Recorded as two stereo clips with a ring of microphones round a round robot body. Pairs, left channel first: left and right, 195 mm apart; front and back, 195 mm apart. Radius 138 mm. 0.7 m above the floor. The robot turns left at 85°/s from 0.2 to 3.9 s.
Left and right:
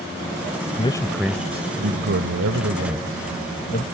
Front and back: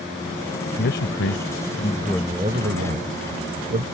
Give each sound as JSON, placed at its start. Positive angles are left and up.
{"t": 0.8, "sound": "a man speaking", "azimuth_deg": 35}